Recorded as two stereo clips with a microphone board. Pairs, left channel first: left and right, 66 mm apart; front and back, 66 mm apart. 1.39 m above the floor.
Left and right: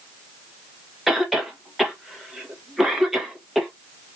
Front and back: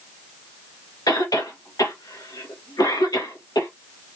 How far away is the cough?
About 1.4 m.